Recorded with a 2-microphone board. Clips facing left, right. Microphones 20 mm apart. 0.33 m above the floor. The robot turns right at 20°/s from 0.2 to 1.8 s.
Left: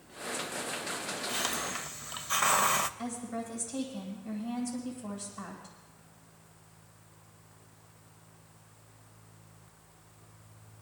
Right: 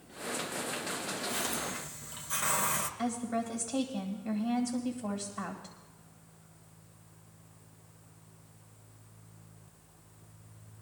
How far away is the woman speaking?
About 1.9 m.